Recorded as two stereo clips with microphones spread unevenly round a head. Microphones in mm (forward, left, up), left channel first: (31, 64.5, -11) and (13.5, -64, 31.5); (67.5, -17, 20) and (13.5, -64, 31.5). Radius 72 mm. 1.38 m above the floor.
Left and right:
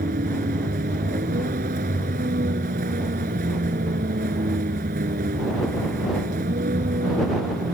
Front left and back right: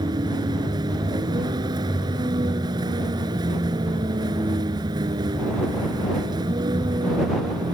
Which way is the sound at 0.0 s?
125° right.